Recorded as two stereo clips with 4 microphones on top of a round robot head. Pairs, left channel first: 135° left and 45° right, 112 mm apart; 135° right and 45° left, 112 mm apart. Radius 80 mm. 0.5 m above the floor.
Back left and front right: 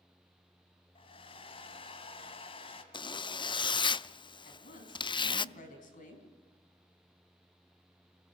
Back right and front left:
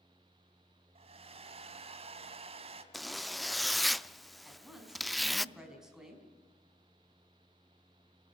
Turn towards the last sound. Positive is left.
turn(degrees=130)